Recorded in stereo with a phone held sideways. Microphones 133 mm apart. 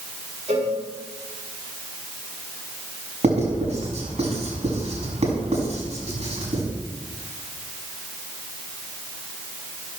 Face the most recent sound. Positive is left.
turn(degrees=-55)  # may be behind; listen again after turning